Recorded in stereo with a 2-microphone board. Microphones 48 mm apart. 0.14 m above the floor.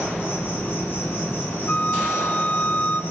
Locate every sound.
0.0 s an insect: 45° left (ahead or behind), 4 m
1.7 s a flute: 45° left (ahead or behind), 0.5 m